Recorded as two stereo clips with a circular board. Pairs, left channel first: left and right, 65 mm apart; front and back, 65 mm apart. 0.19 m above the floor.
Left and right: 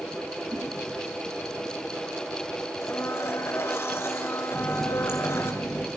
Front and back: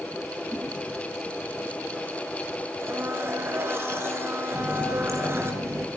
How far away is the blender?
About 3 m.